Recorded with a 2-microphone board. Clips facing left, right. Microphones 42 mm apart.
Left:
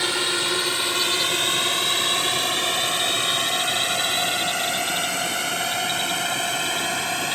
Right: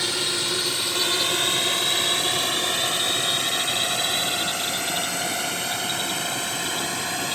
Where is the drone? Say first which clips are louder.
Left 3 dB; 25° left (ahead or behind); by 7.4 s 40° left (ahead or behind).